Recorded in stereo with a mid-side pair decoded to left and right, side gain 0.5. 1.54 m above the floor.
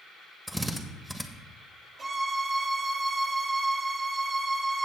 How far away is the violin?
About 2 m.